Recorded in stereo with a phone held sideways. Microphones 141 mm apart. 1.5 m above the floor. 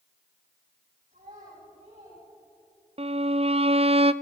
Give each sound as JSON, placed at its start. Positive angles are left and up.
{"t": 1.1, "sound": "a child speaking", "side_deg": -60, "distance_m": 9.5}
{"t": 3.0, "sound": "a violin", "side_deg": -45, "distance_m": 0.6}